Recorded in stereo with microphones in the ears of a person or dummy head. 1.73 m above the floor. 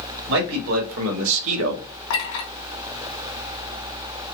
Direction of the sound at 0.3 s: 80° right.